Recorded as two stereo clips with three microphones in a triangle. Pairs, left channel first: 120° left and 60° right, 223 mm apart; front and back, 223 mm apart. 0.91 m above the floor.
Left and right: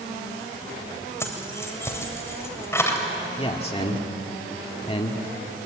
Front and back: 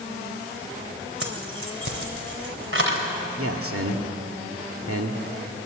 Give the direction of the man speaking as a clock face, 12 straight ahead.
6 o'clock.